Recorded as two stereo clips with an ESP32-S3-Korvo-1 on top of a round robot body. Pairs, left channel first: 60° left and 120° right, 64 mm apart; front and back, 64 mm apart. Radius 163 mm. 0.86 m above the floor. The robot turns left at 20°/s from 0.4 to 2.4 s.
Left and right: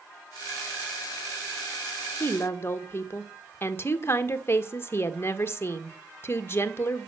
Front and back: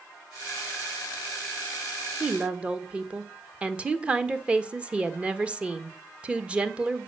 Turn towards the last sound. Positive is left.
turn(degrees=110)